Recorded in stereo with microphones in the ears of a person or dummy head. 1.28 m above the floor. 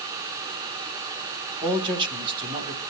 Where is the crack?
I don't hear a crack.